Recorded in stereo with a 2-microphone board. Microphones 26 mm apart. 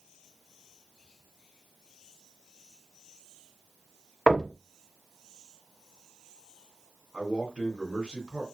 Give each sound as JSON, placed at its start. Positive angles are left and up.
{"t": 4.3, "sound": "knocking", "side_deg": 5, "distance_m": 0.7}
{"t": 7.1, "sound": "a man speaking", "side_deg": -40, "distance_m": 2.5}